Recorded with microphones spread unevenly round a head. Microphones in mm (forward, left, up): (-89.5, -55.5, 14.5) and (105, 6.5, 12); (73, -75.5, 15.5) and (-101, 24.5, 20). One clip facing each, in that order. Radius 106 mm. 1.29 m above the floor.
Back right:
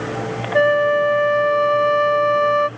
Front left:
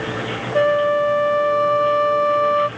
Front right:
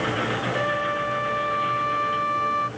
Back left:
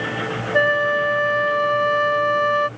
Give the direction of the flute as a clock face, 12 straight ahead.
7 o'clock.